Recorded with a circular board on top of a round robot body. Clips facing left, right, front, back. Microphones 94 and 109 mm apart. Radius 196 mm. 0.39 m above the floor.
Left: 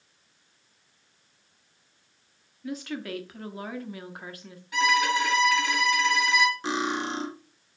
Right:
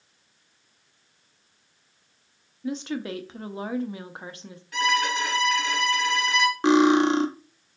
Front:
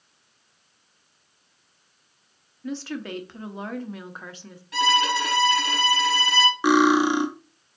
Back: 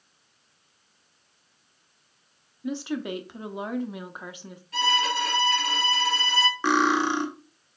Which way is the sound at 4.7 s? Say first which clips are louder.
Left 1 dB, front 4 dB; 10° left.